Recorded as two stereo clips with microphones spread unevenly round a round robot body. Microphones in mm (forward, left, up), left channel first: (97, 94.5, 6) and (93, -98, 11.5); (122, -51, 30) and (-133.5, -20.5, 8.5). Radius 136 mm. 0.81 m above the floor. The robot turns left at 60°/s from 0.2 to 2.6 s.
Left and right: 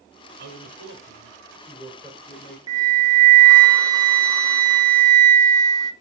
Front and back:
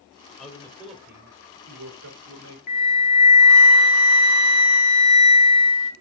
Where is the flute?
20° right, 1.8 m.